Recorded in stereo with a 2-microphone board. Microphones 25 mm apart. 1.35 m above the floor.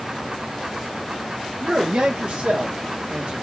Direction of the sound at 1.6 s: 65° right (ahead or behind).